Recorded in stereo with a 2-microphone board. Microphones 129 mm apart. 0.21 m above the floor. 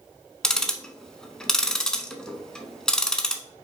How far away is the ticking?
About 0.5 m.